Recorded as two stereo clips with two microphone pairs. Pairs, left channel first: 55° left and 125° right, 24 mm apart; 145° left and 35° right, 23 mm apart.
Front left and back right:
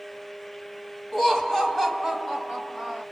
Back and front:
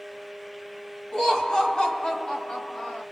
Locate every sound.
1.1 s laughter: 150° left, 1.4 m